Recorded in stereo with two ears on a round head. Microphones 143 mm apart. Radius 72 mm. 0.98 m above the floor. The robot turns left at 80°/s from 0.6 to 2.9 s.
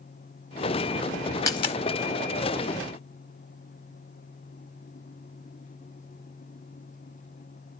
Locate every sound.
1.5 s a dropped coin: 20° left (ahead or behind), 0.8 m; by 1.8 s 45° left (ahead or behind), 0.8 m